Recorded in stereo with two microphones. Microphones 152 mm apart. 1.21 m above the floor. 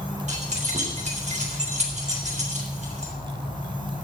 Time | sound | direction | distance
0.3 | keys jangling | 50° right (ahead or behind) | 3.5 m